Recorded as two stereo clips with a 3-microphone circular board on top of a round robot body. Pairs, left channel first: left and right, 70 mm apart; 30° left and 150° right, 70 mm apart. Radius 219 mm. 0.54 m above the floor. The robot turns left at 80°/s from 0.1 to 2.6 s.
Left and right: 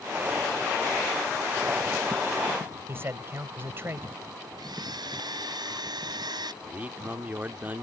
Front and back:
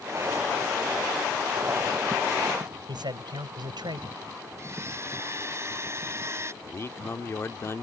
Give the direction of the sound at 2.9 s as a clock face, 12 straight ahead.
5 o'clock.